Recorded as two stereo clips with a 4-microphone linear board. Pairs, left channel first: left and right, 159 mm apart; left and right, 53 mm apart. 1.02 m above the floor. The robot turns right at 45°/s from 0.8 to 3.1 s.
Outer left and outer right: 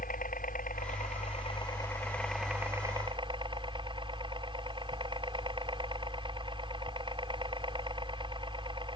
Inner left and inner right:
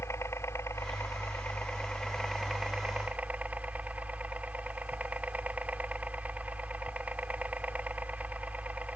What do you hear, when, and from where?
0.0 s a helicopter: 110° left; by 9.0 s 145° right